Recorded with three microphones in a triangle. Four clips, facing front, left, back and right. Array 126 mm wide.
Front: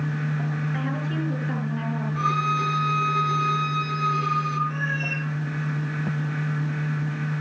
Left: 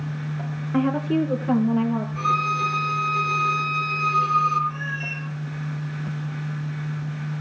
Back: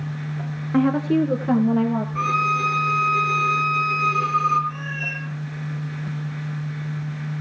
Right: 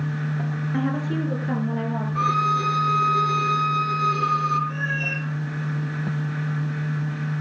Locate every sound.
0.7 s a woman speaking: 160° left, 3 m; by 2.0 s 165° left, 3.5 m
2.1 s a violin: 130° right, 4 m
4.7 s a cat meowing: 60° right, 7 m